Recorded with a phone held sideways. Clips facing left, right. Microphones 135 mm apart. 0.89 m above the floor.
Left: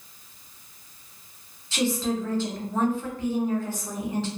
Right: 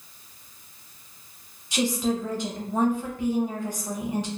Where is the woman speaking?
15° right (ahead or behind), 0.7 m.